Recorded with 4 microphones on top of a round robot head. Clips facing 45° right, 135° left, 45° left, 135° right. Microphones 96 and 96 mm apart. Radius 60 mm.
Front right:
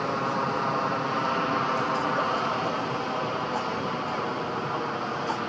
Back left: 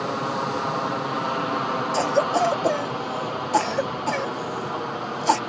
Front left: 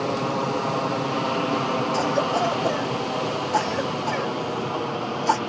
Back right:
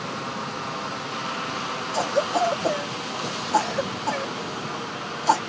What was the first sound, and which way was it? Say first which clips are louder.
An aircraft: back left 1 dB, front left 7 dB; 55° left.